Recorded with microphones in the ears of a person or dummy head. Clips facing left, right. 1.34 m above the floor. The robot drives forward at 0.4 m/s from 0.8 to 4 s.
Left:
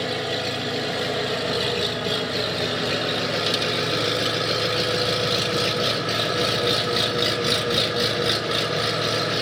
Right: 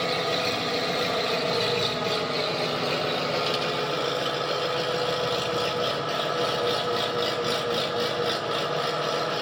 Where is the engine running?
10° left (ahead or behind), 2 m; by 9.4 s 25° left (ahead or behind), 0.8 m.